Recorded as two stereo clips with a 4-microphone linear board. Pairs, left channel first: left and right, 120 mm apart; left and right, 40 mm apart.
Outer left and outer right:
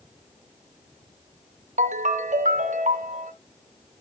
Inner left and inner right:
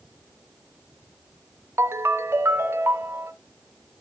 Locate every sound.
1.8 s a ringtone: 80° right, 0.5 m